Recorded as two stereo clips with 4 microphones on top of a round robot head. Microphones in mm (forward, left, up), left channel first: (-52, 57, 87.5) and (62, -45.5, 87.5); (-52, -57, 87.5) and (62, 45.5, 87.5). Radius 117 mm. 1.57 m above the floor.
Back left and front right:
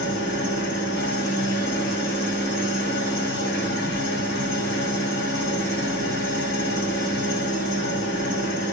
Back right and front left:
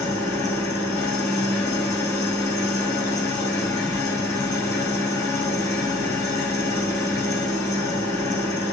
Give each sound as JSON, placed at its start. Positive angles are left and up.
{"t": 0.0, "sound": "an engine running", "azimuth_deg": 150, "distance_m": 5.0}